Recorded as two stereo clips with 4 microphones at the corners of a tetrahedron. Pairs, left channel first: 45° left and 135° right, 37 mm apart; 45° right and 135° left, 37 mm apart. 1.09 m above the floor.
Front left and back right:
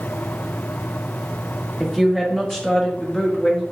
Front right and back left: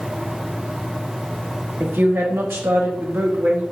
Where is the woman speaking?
140° left, 1.1 m; by 3.6 s 110° left, 1.8 m.